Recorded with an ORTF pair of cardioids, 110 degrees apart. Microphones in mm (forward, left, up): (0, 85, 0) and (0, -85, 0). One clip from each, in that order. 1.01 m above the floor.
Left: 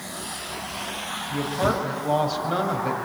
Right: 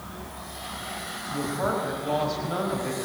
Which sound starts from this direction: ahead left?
A woman speaking, at 1.3 s.